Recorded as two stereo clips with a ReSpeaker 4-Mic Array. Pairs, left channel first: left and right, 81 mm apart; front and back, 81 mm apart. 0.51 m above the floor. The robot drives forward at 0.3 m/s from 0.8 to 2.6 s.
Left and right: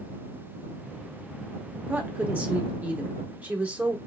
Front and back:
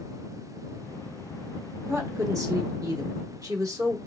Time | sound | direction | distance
1.9 | a woman speaking | 145° right | 1.1 m